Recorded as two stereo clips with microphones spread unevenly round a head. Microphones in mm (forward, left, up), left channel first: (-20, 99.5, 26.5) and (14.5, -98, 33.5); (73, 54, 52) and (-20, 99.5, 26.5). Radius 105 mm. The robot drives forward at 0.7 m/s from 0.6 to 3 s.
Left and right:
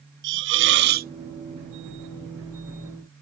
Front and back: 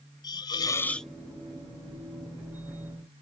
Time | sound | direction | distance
0.2 | a hiss | 90° right | ?